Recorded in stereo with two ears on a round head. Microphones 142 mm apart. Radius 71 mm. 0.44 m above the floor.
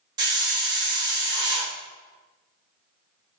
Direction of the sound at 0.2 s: 25° right (ahead or behind).